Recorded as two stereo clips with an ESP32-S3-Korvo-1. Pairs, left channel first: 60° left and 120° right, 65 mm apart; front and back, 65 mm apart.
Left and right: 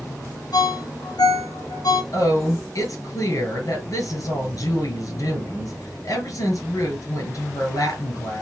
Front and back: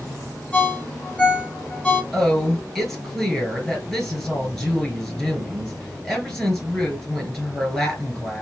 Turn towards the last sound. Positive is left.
turn(degrees=90)